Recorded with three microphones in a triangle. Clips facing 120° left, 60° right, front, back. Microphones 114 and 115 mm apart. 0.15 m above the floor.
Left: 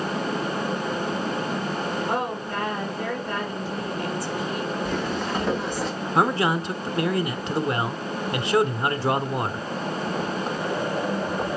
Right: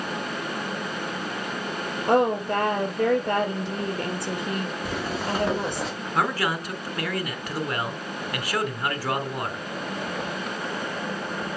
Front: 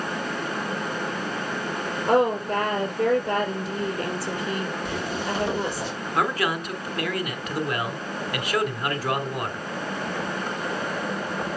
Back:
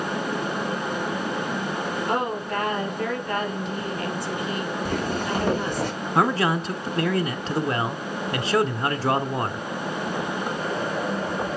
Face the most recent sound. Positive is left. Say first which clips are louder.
# left 4 dB, back 3 dB
turn(degrees=160)